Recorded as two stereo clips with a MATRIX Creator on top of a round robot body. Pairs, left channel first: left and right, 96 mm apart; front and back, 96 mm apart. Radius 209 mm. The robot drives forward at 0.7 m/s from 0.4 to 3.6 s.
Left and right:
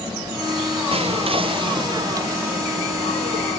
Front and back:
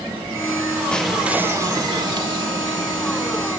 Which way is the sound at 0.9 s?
80° right.